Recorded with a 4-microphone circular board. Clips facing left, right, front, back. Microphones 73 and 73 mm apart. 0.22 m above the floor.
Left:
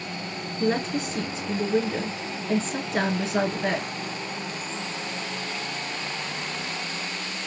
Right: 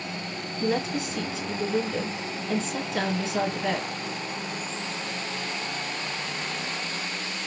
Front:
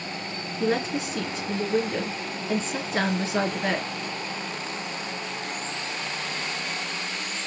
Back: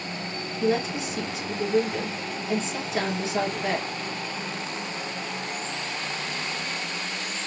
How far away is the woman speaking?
About 3.5 m.